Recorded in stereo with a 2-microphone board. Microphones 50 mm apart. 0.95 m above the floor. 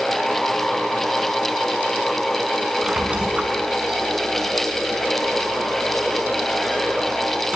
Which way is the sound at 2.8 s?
25° right (ahead or behind).